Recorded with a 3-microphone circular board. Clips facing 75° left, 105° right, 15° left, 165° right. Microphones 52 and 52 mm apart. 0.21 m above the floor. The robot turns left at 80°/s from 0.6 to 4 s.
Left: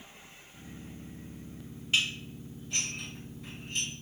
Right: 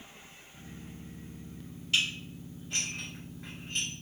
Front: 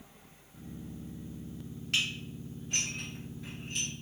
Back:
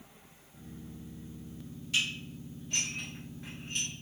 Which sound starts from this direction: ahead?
Dishes clattering, at 1.9 s.